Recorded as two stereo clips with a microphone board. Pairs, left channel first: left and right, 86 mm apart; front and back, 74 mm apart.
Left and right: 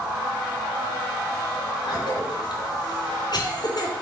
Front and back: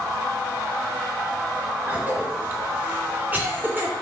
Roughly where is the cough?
Behind left.